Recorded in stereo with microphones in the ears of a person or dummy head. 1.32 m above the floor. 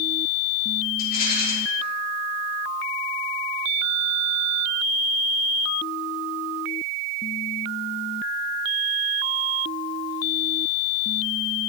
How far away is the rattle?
About 3 m.